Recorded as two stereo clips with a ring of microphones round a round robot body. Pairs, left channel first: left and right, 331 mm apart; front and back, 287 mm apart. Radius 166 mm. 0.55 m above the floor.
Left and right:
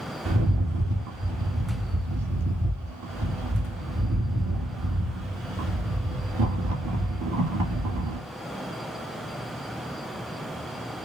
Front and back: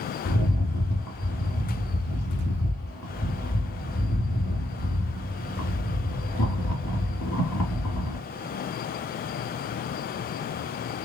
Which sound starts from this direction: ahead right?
A rattle, at 0.2 s.